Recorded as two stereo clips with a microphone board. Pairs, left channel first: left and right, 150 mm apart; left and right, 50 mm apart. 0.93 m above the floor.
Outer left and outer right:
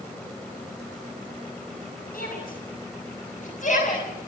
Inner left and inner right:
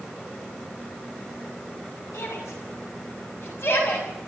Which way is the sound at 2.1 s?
75° left (ahead or behind).